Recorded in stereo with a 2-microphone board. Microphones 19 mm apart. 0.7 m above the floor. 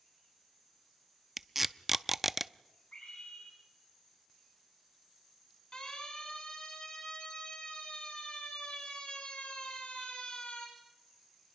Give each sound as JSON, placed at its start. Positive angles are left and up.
{"t": 1.4, "sound": "tape being pulled", "side_deg": -10, "distance_m": 0.5}
{"t": 2.9, "sound": "a scream", "side_deg": 75, "distance_m": 6.5}
{"t": 5.7, "sound": "a siren", "side_deg": 50, "distance_m": 9.5}